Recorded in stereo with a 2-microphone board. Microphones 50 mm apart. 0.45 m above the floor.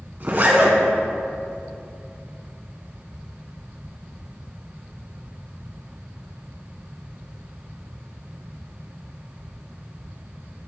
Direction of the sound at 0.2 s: 45° right (ahead or behind).